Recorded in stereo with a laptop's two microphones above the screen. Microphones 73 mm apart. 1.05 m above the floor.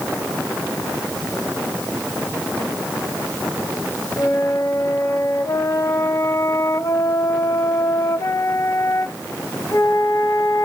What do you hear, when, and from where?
4.2 s a flute: 50° left (ahead or behind), 0.9 m